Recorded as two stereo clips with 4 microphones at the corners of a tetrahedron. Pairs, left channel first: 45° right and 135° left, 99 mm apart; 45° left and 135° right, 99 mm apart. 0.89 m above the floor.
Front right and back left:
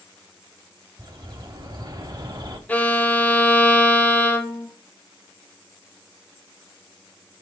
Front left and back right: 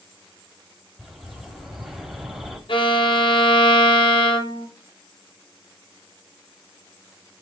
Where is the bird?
140° left, 0.8 m.